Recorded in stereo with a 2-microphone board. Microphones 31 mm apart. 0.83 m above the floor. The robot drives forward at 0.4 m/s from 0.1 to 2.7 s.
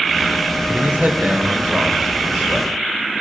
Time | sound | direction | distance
0.7 | a man speaking | 65° right (ahead or behind) | 2.5 m